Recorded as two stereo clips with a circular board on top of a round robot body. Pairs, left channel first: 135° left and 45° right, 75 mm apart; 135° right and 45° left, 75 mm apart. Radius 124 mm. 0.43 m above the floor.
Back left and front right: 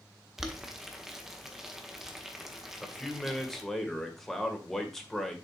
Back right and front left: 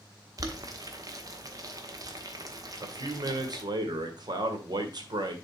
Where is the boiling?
40° left, 1.5 m.